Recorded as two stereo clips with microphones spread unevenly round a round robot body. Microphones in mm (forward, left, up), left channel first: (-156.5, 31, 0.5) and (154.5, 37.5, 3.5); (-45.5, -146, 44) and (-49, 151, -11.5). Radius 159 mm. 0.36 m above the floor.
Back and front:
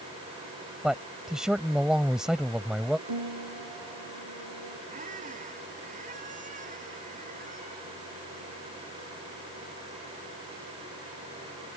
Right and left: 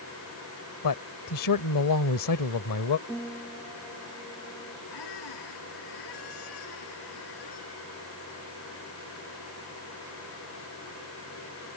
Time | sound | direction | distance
0.8 | a man speaking | 85° right | ?
3.1 | a piano | 5° right | ?
4.9 | a squeak | 65° right | ?